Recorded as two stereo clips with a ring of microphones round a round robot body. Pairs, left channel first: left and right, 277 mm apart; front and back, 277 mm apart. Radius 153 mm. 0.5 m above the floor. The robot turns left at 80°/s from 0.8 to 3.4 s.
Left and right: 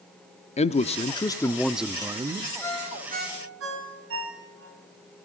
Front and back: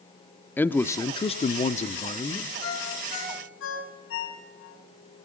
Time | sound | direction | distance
0.6 | a man speaking | 75° left | 0.7 m
2.6 | a ringtone | 15° left | 5 m